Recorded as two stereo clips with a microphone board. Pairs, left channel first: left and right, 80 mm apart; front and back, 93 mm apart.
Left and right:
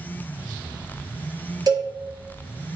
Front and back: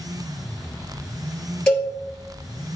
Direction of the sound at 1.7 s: 75° right.